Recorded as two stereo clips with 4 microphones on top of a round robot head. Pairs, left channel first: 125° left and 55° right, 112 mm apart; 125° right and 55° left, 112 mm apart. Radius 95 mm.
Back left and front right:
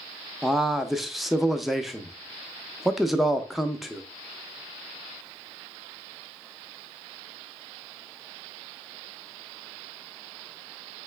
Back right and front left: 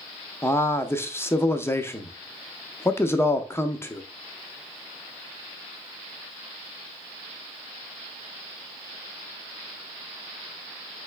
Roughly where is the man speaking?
Behind right.